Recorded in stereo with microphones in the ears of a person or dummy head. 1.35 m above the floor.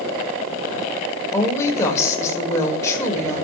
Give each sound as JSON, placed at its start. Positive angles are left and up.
{"t": 1.3, "sound": "a woman speaking", "side_deg": 20, "distance_m": 5.0}